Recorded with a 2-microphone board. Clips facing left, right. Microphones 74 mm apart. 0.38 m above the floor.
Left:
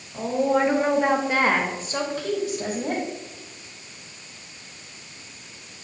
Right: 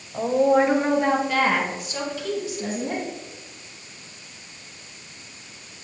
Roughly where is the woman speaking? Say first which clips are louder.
Right 3 dB; right.